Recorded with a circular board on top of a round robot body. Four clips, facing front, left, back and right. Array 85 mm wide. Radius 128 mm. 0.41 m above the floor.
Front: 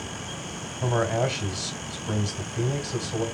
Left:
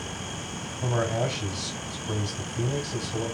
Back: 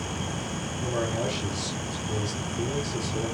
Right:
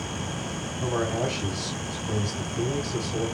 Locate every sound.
0.8 s a man speaking: straight ahead, 2 m